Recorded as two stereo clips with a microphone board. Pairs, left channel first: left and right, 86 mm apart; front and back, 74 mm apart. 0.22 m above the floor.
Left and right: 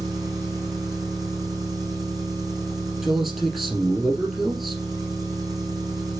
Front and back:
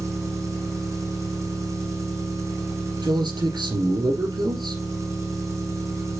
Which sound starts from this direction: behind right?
An engine running, at 0.0 s.